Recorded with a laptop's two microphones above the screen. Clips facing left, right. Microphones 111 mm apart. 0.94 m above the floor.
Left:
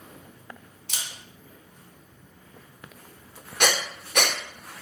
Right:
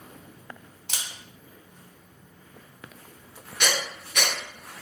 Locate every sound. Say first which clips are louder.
0.9 s a camera shutter: right 1 dB; 80° right, 1.5 m
3.6 s breathing: left 3 dB; 50° left (ahead or behind), 0.7 m